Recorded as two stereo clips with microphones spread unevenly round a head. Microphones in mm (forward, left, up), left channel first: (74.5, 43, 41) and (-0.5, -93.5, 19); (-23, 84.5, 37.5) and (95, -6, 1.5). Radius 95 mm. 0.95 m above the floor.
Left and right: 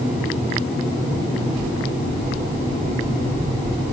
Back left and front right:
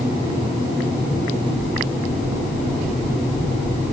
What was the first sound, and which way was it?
Only background noise.